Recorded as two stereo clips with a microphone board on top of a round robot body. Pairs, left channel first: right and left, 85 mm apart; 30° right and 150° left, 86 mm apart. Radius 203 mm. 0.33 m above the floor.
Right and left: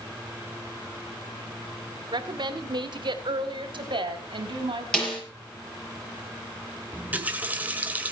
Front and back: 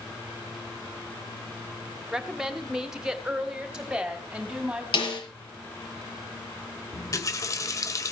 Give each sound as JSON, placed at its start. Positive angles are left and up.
{"t": 2.1, "sound": "a woman speaking", "azimuth_deg": 65, "distance_m": 2.0}
{"t": 4.9, "sound": "a snare drum", "azimuth_deg": -10, "distance_m": 6.5}
{"t": 6.9, "sound": "a running tap", "azimuth_deg": 20, "distance_m": 1.7}